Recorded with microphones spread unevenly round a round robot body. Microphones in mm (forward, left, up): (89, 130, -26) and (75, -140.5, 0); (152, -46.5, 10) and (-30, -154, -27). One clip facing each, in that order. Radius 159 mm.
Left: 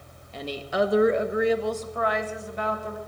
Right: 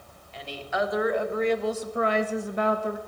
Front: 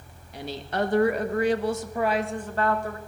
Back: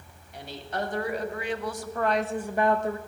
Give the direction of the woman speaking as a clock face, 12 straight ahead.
10 o'clock.